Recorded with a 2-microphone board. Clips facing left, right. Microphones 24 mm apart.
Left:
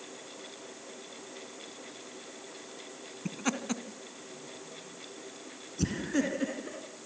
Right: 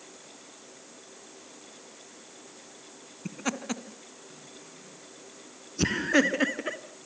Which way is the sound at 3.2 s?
5° left (ahead or behind).